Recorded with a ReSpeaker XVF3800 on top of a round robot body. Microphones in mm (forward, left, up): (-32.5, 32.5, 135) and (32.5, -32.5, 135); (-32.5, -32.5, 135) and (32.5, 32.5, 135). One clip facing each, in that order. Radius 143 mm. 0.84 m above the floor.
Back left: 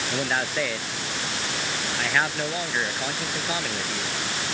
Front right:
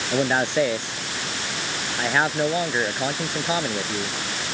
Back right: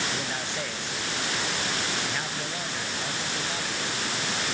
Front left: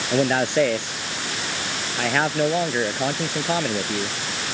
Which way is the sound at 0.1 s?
20° left.